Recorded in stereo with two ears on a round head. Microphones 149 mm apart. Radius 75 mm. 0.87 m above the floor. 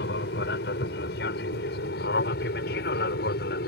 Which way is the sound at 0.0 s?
70° left (ahead or behind).